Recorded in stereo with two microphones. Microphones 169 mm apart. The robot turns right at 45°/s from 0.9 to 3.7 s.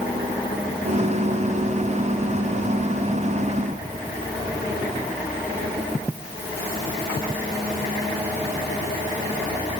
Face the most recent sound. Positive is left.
No sound to turn to.